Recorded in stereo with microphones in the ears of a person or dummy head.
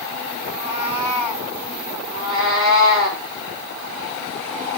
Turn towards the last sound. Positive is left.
turn(degrees=-40)  # may be behind; listen again after turning